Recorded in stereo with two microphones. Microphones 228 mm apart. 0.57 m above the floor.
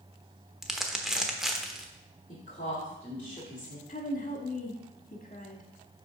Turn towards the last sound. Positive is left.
turn(degrees=35)  # may be behind; listen again after turning